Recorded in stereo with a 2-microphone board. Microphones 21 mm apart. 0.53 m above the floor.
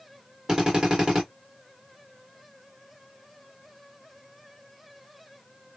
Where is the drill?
30° right (ahead or behind), 1.7 m.